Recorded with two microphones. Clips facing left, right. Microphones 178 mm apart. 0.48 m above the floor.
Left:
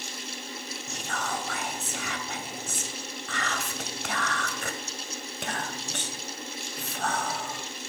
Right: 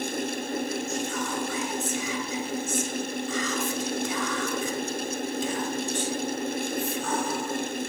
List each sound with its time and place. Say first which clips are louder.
0.9 s whispering: right 5 dB; 70° left (ahead or behind), 2.5 m